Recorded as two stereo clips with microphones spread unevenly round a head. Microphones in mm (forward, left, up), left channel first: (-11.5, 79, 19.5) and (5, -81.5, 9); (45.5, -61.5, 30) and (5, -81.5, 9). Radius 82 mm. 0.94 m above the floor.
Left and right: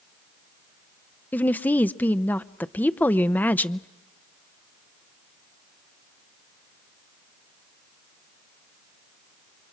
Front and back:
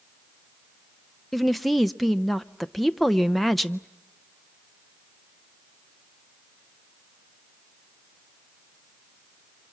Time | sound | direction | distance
1.3 | a woman speaking | 170° left | 0.6 m